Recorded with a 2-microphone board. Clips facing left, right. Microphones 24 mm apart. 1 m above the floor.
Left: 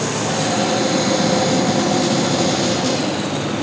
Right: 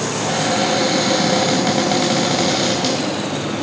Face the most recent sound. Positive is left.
turn(degrees=-65)  # may be behind; listen again after turning